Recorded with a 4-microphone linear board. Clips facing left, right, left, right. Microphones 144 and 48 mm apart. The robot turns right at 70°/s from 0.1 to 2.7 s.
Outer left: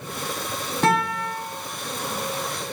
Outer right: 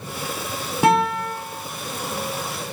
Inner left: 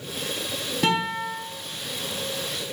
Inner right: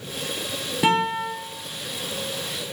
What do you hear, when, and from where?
0.8 s a guitar: 170° right, 0.5 m; by 1.3 s 135° right, 0.5 m